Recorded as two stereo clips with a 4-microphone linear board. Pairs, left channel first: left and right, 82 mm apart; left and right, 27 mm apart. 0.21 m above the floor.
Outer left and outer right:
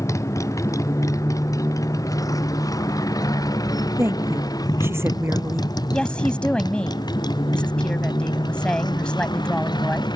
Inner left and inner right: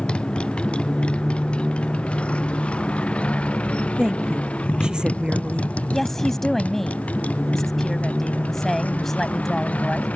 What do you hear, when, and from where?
0.0 s a motorcycle: 40° left (ahead or behind); by 10.2 s 60° left (ahead or behind)
4.0 s a woman speaking: 30° right (ahead or behind)
5.9 s a woman speaking: 10° left (ahead or behind)